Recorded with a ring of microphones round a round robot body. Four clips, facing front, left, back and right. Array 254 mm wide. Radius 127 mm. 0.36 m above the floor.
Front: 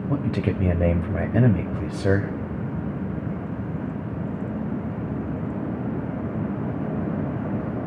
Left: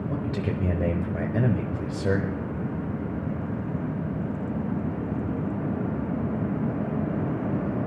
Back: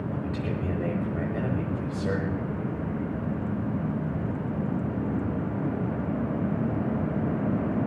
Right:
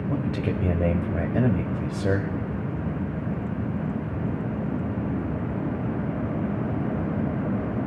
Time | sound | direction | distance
0.1 | a man speaking | 10° right | 1.2 m